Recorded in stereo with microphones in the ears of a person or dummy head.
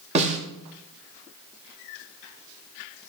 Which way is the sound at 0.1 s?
35° right (ahead or behind).